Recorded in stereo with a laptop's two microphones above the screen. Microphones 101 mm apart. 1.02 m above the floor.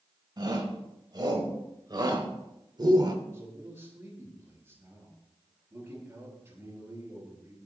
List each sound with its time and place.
0.4 s a shout: 45° right (ahead or behind), 4.5 m
3.2 s a man speaking: 20° right (ahead or behind), 7.5 m